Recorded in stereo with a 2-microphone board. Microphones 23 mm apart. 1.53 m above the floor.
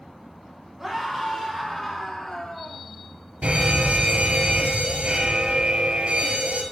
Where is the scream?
20° right (ahead or behind), 6.5 m; by 2.8 s 5° left (ahead or behind), 7 m.